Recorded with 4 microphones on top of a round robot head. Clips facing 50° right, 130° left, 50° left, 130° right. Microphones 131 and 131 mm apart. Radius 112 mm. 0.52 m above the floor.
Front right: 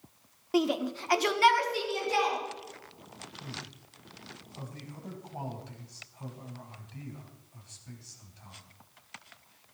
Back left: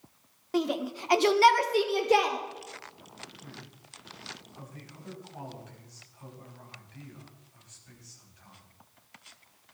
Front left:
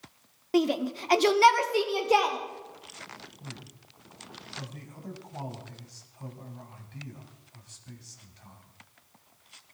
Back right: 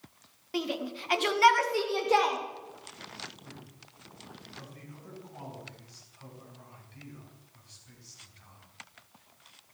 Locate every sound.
0.5 s a shout: 30° left, 1.6 m; by 2.4 s 130° left, 2.5 m
3.4 s a man speaking: 10° left, 4.5 m